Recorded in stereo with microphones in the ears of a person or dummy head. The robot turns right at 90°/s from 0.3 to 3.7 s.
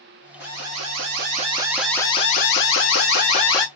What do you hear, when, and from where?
0.4 s an alarm: 130° right, 1.8 m; by 3.7 s 165° left, 1.8 m